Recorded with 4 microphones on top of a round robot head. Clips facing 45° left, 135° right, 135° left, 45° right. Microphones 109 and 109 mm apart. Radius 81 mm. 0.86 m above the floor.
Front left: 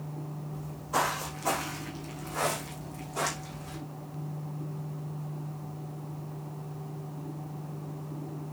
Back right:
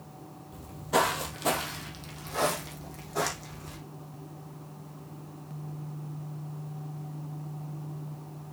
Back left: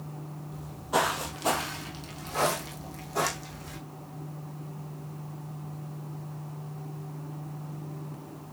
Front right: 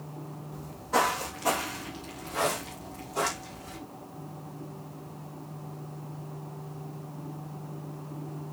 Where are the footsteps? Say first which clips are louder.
Back right 4 dB, front right 1 dB; 135° right, 1.7 m; by 3.8 s straight behind, 3 m.